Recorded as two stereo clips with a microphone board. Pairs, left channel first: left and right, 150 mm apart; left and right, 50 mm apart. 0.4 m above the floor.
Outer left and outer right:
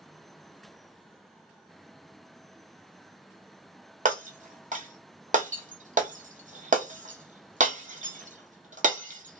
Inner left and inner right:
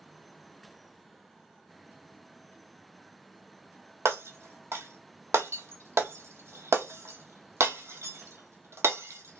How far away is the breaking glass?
About 0.8 m.